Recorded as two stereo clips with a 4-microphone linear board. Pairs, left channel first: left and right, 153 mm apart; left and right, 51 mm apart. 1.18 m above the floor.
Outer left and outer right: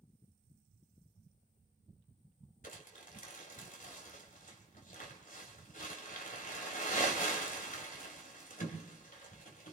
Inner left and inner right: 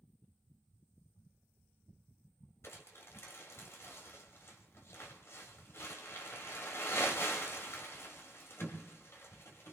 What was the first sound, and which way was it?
Crumpling, 70° left (ahead or behind).